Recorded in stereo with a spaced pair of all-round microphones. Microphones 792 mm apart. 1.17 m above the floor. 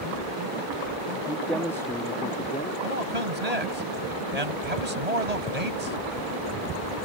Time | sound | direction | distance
1.3 | a man speaking | 5° right (ahead or behind) | ?
2.8 | a man speaking | 50° right (ahead or behind) | ?